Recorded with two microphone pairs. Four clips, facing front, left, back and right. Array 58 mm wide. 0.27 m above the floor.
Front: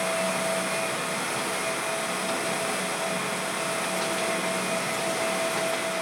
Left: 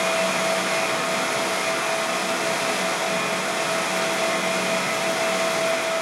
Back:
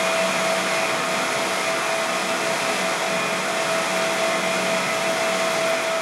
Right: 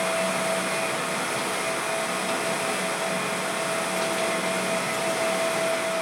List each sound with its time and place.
Only background noise.